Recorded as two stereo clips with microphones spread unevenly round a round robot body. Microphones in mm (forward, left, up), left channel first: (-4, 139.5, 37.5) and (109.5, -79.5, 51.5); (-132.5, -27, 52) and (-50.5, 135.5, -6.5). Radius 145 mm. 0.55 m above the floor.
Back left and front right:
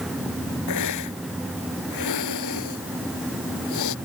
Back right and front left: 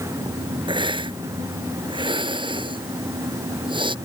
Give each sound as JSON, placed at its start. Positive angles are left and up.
{"t": 0.7, "sound": "a hiss", "azimuth_deg": 130}